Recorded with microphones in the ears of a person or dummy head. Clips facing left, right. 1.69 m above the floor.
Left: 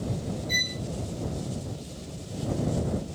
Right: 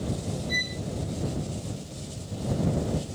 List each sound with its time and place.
0.5 s a violin: 35° left (ahead or behind)